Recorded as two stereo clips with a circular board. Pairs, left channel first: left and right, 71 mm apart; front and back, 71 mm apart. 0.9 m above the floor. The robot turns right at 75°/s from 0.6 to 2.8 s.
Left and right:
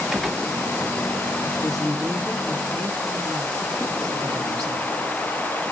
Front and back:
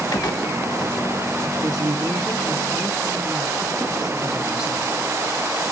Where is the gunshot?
5° right, 1.5 m.